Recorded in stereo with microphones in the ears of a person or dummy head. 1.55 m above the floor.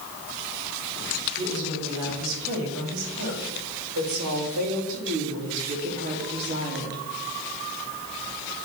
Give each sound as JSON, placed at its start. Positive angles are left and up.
{"t": 1.4, "sound": "a woman speaking", "side_deg": -80, "distance_m": 4.0}